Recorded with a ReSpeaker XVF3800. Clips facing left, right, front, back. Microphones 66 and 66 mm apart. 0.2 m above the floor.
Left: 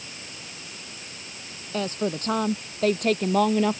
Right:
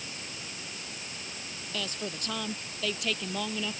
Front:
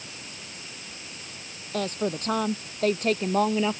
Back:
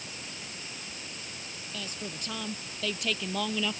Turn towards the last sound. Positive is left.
turn(degrees=60)